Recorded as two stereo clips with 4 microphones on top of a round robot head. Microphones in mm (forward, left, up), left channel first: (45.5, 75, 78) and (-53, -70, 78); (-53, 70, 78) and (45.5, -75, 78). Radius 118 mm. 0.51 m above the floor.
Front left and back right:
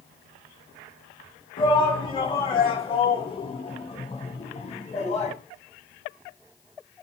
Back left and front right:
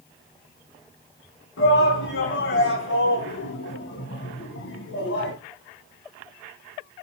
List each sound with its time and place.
1.6 s a shout: 120° left, 7 m; by 5.3 s 110° left, 5.5 m